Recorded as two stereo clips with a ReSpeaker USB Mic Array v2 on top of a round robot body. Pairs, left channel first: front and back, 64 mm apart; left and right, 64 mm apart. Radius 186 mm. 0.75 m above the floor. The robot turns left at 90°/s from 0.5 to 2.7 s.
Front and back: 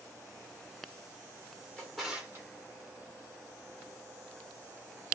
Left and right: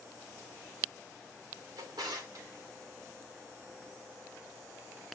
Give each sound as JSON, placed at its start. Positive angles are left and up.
{"t": 1.8, "sound": "a drawer", "azimuth_deg": -70, "distance_m": 1.2}